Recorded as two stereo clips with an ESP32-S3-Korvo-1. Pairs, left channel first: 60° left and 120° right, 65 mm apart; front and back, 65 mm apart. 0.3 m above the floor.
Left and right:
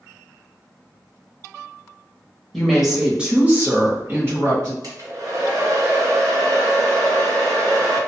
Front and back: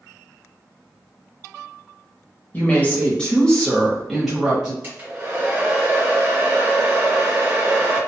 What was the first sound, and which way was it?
A woman speaking, 25° right.